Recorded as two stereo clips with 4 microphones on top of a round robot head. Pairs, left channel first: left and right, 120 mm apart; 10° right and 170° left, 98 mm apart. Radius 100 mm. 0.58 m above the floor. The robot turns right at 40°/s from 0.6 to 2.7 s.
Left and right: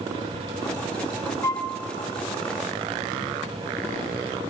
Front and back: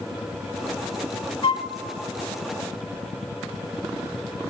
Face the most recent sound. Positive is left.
turn(degrees=70)